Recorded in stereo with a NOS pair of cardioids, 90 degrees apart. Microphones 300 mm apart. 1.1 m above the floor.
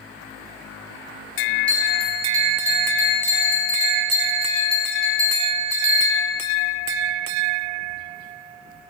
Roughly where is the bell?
Ahead.